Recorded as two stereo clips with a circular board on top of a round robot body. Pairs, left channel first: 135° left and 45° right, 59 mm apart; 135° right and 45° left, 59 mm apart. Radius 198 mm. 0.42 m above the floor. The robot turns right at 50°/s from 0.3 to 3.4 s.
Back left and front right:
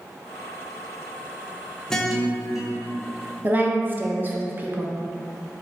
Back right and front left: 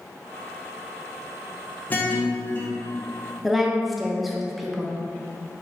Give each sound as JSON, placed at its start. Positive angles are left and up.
{"t": 1.9, "sound": "a guitar", "azimuth_deg": -155, "distance_m": 0.9}
{"t": 3.4, "sound": "a woman speaking", "azimuth_deg": -40, "distance_m": 0.7}